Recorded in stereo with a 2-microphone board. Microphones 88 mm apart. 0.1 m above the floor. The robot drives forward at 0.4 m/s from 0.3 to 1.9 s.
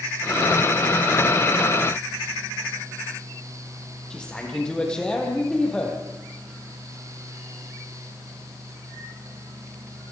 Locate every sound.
4.1 s a man speaking: 10° left (ahead or behind), 4.5 m